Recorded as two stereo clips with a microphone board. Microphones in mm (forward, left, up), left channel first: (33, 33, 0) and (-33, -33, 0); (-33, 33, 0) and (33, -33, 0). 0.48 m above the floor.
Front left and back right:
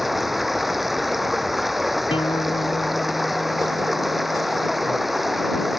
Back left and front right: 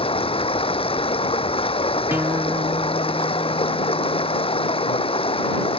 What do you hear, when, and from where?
0.0 s running water: 135° left
2.1 s a guitar: 25° left